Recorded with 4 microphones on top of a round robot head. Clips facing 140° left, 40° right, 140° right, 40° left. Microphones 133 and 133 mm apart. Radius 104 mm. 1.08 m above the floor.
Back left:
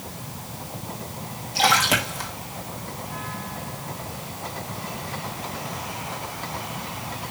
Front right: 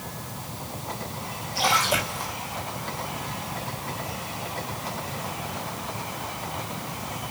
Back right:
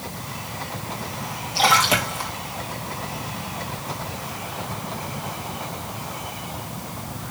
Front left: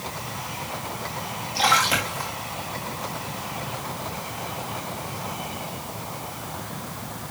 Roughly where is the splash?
Behind left.